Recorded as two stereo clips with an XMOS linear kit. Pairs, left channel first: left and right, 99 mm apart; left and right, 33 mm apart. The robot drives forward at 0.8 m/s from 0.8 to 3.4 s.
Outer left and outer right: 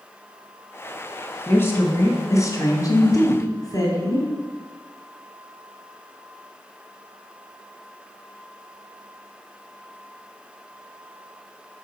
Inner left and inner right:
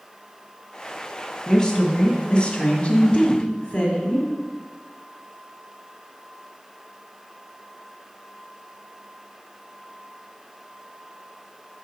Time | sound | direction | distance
1.5 | a woman speaking | 25° left (ahead or behind) | 1.7 m